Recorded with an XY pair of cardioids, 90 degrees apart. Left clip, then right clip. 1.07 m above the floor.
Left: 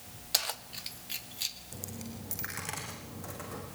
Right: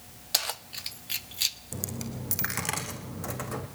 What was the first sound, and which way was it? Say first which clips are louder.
Keys jangling: right 3 dB; 20° right.